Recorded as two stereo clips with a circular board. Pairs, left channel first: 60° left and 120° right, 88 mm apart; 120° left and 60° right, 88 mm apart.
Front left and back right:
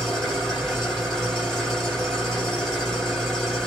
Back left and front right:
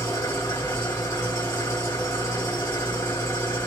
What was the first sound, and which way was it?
An engine running, 145° left.